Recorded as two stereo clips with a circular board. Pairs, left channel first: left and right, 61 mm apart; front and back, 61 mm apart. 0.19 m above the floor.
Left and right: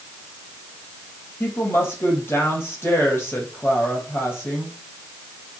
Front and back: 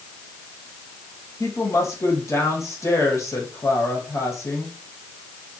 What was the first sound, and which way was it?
A woman speaking, 40° left.